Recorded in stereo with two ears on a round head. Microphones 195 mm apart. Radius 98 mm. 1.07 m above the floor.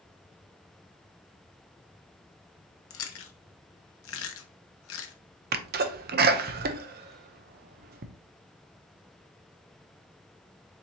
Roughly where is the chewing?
Left.